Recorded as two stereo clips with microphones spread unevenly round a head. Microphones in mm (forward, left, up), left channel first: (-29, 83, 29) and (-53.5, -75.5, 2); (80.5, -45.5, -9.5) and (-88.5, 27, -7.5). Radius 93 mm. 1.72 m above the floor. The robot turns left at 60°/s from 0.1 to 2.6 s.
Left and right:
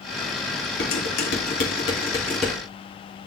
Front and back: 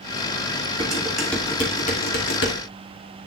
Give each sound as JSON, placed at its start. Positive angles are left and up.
{"t": 0.8, "sound": "dishes clattering", "azimuth_deg": 95, "distance_m": 2.5}